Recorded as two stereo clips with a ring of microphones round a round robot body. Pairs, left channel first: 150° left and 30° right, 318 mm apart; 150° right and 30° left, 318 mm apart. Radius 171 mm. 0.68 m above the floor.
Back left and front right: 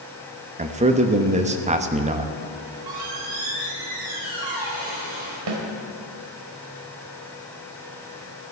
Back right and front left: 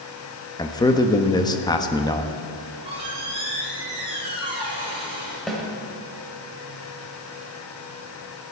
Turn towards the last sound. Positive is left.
turn(degrees=-60)